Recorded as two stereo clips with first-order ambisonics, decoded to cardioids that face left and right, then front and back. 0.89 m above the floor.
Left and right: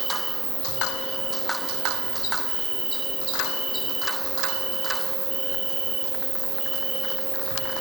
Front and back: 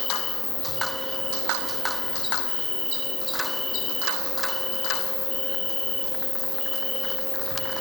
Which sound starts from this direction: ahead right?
An insect, at 0.0 s.